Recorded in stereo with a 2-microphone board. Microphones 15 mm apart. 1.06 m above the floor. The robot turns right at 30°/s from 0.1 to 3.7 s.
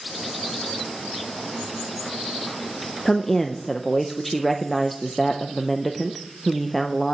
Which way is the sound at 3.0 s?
25° left (ahead or behind).